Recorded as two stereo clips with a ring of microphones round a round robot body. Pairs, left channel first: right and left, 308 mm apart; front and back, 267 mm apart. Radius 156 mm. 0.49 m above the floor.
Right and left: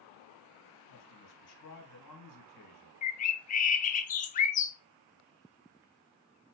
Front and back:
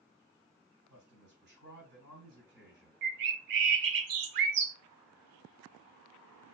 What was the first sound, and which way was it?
A man speaking, 125° right.